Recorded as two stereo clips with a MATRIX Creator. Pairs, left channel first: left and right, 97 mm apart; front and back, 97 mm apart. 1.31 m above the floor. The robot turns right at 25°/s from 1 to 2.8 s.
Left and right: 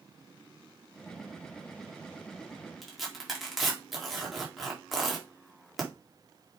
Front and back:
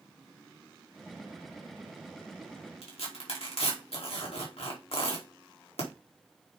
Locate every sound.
2.8 s tearing paper: straight ahead, 3 m